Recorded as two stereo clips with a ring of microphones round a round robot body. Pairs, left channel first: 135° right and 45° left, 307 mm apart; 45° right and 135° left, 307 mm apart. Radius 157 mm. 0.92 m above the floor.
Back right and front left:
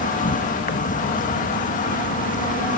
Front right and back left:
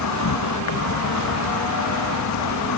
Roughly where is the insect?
Right.